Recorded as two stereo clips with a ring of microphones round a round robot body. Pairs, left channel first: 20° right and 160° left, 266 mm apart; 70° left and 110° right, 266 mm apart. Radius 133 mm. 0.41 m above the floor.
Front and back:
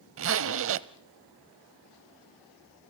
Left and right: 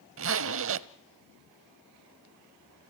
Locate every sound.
0.2 s a zipper: 155° right, 0.6 m